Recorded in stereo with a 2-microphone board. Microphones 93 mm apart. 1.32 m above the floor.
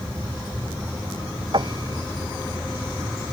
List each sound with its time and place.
1.5 s a piano: 55° right (ahead or behind)